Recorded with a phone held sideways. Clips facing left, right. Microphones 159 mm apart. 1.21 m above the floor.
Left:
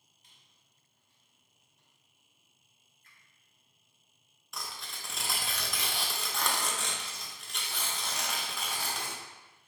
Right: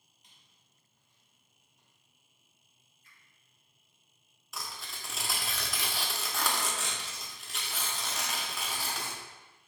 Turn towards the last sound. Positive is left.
turn(degrees=0)  # may be behind; listen again after turning